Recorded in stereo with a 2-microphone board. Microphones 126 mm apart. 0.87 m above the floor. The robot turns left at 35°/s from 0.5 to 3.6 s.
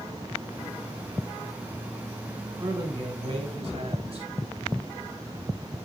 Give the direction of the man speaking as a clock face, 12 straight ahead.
1 o'clock.